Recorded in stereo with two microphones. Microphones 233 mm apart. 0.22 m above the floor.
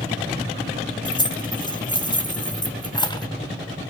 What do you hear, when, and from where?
1.1 s keys jangling: 20° left (ahead or behind), 1.1 m